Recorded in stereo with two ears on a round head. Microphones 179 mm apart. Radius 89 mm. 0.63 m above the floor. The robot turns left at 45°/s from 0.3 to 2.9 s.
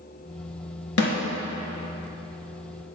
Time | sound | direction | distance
1.0 | a snare drum | 75° left (ahead or behind) | 1.7 m